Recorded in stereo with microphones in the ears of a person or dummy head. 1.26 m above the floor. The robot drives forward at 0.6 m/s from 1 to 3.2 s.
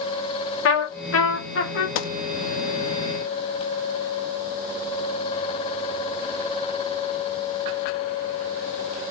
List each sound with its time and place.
0.7 s a trumpet: 65° left (ahead or behind), 1.2 m; by 1.9 s 55° left (ahead or behind), 1.3 m
1.9 s a gunshot: 75° left (ahead or behind), 0.5 m; by 2.1 s 85° left, 0.5 m